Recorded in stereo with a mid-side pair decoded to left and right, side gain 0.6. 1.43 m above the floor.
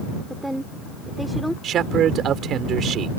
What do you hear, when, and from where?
0.3 s a woman speaking: 5° right; by 1.5 s straight ahead
1.6 s a man speaking: 50° right